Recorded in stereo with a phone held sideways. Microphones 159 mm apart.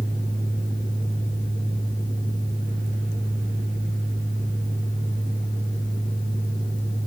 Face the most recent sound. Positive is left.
turn(degrees=-70)  # may be behind; listen again after turning